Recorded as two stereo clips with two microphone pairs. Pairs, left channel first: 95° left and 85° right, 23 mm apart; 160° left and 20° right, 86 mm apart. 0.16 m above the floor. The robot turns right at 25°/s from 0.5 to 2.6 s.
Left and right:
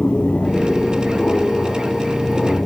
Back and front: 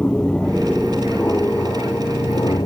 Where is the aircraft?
85° left; by 2.7 s 120° left.